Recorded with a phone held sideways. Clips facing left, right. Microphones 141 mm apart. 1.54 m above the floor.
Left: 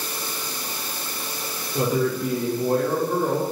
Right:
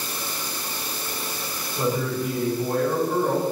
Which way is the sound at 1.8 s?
80° left.